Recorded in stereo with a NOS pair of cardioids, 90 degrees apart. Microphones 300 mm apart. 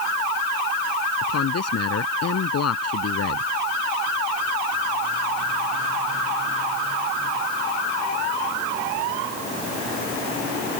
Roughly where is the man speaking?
Ahead left.